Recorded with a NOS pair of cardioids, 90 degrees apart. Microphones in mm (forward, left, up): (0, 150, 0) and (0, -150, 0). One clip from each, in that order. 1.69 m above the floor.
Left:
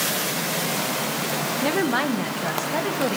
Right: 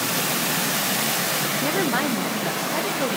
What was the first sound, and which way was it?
A woman speaking, 5° right.